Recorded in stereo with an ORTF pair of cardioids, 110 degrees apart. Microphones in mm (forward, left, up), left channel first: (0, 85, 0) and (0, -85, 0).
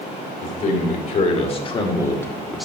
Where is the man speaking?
50° left, 2.5 m; by 2.6 s straight ahead, 1.2 m.